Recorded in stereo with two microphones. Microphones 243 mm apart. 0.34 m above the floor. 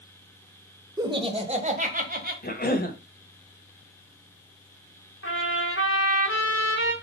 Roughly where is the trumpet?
Left.